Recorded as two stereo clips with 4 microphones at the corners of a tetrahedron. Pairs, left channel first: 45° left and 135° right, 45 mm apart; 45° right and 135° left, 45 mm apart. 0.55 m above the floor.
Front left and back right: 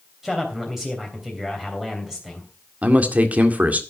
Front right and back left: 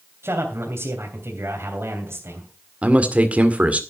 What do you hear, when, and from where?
0.2 s a man speaking: 145° left, 3 m
2.8 s a man speaking: 175° right, 1.9 m